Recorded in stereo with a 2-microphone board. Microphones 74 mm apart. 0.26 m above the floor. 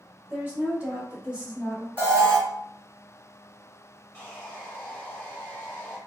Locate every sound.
0.3 s a woman speaking: 20° right (ahead or behind), 1.0 m; by 1.9 s 10° right (ahead or behind), 1.3 m
2.0 s an alarm: 20° right (ahead or behind), 1.4 m
4.1 s sawing: 20° left (ahead or behind), 1.0 m